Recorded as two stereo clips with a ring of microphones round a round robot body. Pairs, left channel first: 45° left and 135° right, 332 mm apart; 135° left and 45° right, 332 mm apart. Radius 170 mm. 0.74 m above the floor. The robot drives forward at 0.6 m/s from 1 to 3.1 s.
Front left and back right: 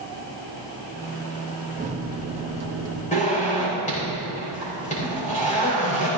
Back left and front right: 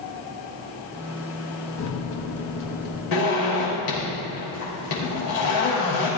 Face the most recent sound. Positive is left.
turn(degrees=115)